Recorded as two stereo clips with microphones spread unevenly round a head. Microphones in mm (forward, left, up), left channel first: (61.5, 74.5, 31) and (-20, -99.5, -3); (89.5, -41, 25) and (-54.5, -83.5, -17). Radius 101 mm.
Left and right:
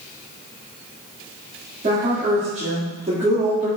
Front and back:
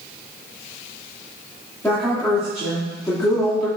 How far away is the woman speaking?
About 2.5 m.